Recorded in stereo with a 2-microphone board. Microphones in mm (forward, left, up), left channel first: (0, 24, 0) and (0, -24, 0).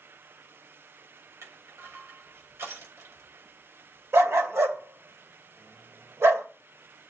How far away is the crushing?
About 7 m.